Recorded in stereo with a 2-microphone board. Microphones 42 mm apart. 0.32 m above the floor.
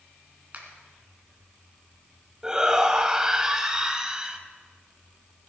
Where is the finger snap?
35° right (ahead or behind), 3 m.